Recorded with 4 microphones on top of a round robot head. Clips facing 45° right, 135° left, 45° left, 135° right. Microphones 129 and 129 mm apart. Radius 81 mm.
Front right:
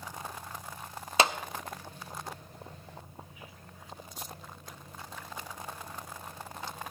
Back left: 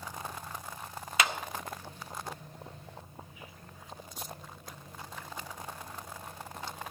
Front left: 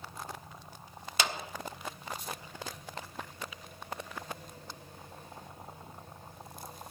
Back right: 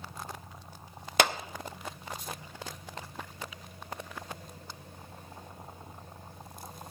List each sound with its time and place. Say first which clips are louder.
1.2 s a clap: front right 5 dB, back right 7 dB; 105° right, 0.6 m